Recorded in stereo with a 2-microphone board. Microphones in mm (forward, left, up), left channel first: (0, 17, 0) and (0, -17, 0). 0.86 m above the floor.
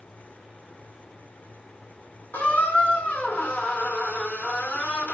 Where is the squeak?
70° left (ahead or behind), 1.9 m.